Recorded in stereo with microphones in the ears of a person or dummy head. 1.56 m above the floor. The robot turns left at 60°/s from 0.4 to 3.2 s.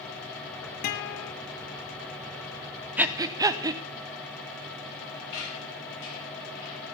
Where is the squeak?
75° left (ahead or behind), 7 m.